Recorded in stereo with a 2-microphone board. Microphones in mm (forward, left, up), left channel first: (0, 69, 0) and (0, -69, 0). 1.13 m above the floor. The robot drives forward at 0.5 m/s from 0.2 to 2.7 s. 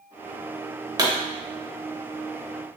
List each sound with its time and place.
1.0 s a pop: 25° right (ahead or behind), 0.8 m